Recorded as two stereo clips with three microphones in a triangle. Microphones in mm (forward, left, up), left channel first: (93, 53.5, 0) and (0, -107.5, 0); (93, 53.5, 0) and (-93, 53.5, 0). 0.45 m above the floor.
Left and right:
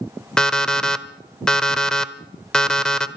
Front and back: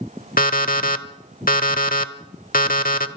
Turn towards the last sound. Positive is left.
turn(degrees=-25)